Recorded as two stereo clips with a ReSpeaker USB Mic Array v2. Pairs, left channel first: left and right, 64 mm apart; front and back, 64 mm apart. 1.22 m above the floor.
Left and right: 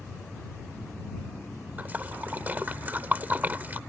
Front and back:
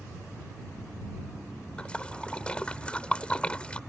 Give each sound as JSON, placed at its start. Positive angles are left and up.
{"t": 1.8, "sound": "a splash", "azimuth_deg": -60}